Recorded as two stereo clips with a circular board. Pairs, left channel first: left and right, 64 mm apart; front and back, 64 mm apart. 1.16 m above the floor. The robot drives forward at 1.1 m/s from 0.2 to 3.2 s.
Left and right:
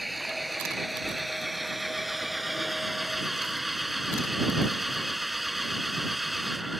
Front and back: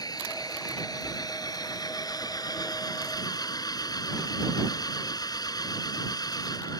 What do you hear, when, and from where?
0.0 s an engine running: straight ahead; by 6.8 s 5° right